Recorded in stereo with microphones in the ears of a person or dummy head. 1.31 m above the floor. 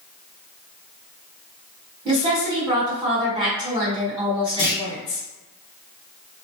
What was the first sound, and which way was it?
A woman speaking, 20° right (ahead or behind).